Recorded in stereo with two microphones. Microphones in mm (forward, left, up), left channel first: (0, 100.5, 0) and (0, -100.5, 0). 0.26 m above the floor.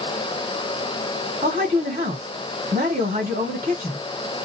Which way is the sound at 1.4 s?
40° right (ahead or behind).